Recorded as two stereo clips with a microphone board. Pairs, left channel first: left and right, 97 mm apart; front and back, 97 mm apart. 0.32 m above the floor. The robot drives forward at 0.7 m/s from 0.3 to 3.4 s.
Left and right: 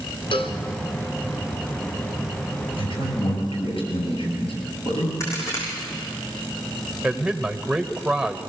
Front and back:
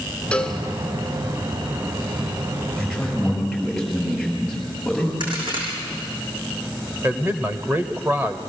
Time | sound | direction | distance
0.3 | a cowbell | 80° left | 1.6 m
2.8 | a man speaking | 90° left | 7 m
5.2 | a crack | 150° left | 7 m
7.0 | a man speaking | 160° right | 1.1 m